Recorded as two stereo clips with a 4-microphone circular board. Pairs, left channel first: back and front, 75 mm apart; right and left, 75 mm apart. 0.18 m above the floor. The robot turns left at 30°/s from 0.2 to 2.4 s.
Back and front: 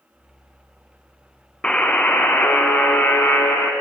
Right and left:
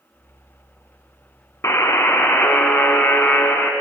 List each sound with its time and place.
1.6 s a buzzer: 105° right, 0.5 m; by 3.7 s 130° right, 0.5 m